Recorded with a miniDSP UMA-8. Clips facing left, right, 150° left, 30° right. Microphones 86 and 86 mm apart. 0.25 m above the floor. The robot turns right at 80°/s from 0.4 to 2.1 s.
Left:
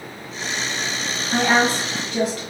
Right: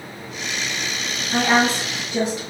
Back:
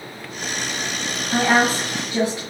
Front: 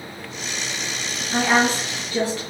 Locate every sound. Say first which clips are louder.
1.3 s a woman speaking: even, back 1 dB; 145° left, 1.3 m; by 2.4 s 150° right, 1.3 m